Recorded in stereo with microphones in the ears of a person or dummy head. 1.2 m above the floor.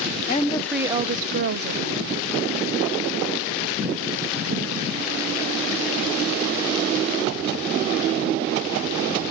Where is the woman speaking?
40° left (ahead or behind), 0.8 m; by 2.2 s 70° right (ahead or behind), 1.9 m.